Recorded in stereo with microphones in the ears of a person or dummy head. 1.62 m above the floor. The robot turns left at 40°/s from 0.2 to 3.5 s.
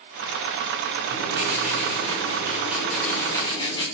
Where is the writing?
110° right, 7 m; by 3.8 s 155° left, 7 m.